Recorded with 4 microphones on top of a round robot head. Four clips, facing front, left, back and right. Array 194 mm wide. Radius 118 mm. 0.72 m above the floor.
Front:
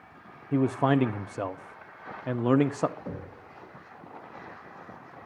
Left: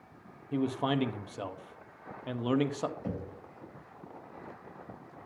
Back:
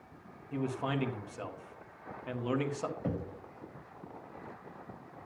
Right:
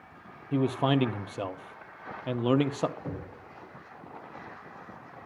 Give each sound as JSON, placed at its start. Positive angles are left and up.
{"t": 0.5, "sound": "a man speaking", "azimuth_deg": -25, "distance_m": 0.9}
{"t": 3.0, "sound": "knocking", "azimuth_deg": 170, "distance_m": 4.0}